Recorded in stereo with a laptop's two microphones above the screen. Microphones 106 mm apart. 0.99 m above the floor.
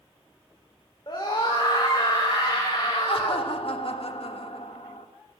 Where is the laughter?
65° left (ahead or behind), 1.5 m.